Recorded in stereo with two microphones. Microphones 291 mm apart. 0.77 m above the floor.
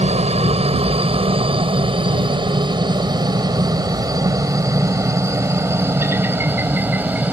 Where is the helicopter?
20° right (ahead or behind); by 7.3 s 5° right (ahead or behind).